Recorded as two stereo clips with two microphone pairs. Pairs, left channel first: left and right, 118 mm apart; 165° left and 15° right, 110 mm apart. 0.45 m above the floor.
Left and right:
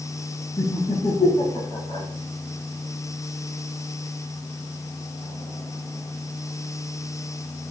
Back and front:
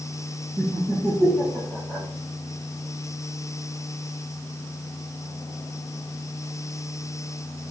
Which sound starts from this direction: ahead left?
Laughter, at 0.6 s.